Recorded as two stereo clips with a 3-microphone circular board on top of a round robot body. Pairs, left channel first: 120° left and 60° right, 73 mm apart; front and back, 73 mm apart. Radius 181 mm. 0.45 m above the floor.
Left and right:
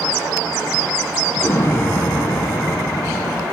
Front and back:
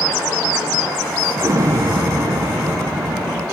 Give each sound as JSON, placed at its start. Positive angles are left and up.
{"t": 1.4, "sound": "an explosion", "azimuth_deg": 160, "distance_m": 1.0}